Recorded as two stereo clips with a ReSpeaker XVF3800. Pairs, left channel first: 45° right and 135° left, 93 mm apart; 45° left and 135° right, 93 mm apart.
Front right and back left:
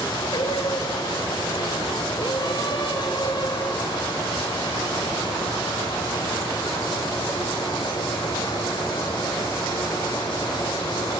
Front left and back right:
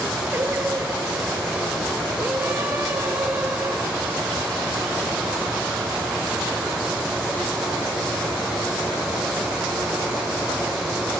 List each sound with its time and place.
0.3 s singing: 70° right, 3 m